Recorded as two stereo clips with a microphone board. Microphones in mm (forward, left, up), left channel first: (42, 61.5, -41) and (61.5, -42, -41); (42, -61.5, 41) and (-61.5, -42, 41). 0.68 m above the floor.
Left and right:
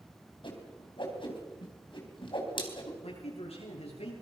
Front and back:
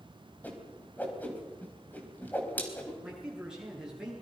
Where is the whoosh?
65° left, 4 m.